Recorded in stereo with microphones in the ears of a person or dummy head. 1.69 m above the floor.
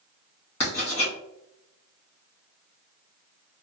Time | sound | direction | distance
0.6 | writing | 30° left (ahead or behind) | 1.7 m